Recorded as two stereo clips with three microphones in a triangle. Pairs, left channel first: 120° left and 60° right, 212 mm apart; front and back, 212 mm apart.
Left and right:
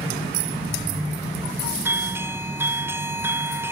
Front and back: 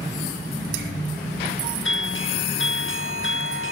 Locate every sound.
1.9 s a doorbell: 20° left